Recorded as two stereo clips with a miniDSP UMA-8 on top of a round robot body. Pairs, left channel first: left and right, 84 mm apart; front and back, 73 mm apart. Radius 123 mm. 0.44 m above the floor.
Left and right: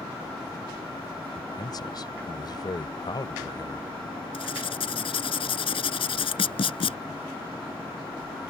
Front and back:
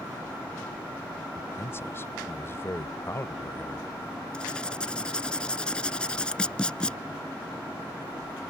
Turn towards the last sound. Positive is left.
turn(degrees=80)